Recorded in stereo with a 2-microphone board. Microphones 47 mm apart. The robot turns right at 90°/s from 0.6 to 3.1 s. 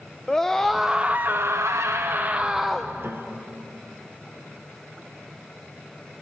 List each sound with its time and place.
0.3 s a scream: 170° left, 0.8 m; by 2.9 s 15° left, 0.8 m
3.0 s a piano: 60° right (ahead or behind), 1.0 m; by 3.8 s 55° right (ahead or behind), 1.0 m